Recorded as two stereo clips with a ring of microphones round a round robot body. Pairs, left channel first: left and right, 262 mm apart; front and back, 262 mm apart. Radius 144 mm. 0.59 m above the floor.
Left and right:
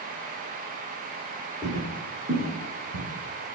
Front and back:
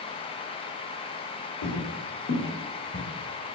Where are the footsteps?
10° right, 1.2 m; by 3.0 s 60° right, 1.6 m.